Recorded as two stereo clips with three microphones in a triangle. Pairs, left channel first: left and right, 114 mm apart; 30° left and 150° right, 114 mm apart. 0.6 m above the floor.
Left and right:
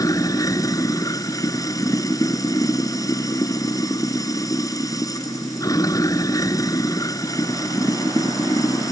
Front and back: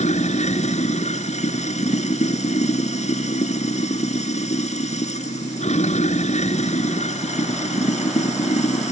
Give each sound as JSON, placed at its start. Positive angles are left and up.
{"t": 0.0, "sound": "running water", "azimuth_deg": 30}